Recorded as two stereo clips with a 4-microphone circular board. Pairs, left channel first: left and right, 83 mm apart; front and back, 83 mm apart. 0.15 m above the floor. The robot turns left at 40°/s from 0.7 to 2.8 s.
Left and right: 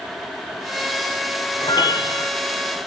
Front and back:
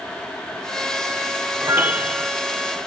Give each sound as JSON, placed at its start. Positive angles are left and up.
{"t": 1.6, "sound": "a piano", "azimuth_deg": 120, "distance_m": 0.8}